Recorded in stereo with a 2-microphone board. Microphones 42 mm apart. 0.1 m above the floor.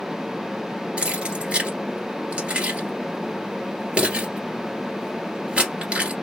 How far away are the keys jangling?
About 1.5 m.